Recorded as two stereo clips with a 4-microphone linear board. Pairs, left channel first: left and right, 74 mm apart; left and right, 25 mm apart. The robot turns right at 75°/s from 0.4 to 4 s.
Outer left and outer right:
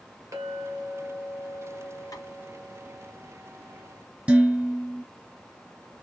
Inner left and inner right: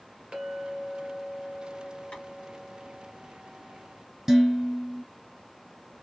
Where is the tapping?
55° left (ahead or behind), 2.5 m; by 2.2 s 60° left (ahead or behind), 2.5 m.